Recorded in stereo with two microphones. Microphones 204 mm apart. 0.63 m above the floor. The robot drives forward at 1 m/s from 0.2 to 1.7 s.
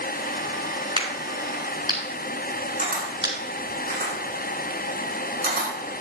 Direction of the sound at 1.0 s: 30° right (ahead or behind).